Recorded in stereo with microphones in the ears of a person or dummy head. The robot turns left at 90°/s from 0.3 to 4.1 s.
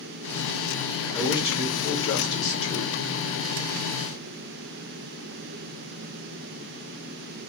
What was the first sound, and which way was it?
A man speaking, 170° left.